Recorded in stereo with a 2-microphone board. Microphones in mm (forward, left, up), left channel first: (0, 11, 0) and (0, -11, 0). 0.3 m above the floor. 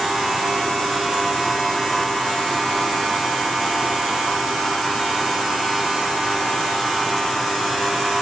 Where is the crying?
No crying in this recording.